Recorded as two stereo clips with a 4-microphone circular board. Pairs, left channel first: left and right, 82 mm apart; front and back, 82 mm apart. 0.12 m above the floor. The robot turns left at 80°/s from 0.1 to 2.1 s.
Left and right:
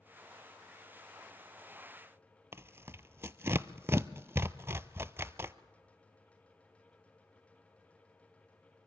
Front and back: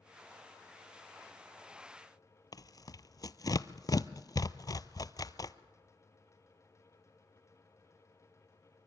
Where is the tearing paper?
30° right, 0.5 m.